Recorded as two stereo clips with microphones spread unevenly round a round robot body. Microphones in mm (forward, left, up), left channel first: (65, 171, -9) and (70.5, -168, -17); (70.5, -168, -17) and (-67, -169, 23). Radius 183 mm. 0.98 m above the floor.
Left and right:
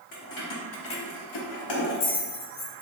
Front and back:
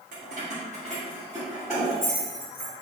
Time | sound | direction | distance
0.1 | keys jangling | 160° left | 0.8 m